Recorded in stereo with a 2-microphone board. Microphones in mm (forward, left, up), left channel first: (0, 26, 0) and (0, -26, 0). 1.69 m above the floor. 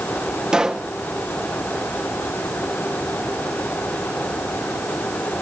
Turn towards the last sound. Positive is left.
turn(degrees=-15)  # may be behind; listen again after turning